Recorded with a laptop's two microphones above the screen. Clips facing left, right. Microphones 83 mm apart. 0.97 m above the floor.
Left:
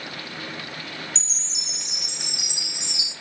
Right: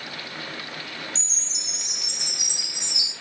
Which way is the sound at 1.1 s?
55° left (ahead or behind).